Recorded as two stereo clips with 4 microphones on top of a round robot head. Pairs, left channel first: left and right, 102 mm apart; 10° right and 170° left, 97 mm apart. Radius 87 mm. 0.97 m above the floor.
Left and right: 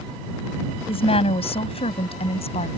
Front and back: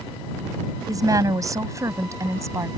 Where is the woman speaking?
120° left; by 2.7 s 110° left.